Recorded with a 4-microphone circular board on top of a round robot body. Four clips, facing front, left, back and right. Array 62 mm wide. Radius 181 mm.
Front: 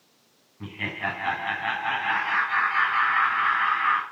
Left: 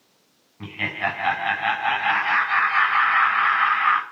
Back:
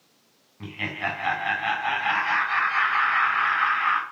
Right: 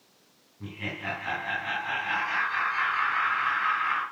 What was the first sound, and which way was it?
Laughter, 105° left.